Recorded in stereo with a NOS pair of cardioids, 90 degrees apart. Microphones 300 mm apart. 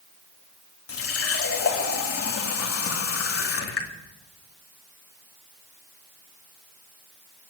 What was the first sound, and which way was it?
A running tap, 50° left.